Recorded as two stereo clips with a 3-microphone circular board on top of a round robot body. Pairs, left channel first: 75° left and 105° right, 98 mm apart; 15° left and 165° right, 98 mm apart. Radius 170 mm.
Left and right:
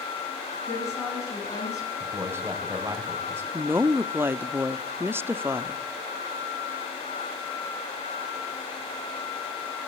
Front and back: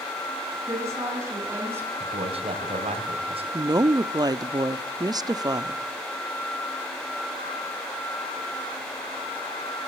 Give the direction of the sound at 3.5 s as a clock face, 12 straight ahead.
5 o'clock.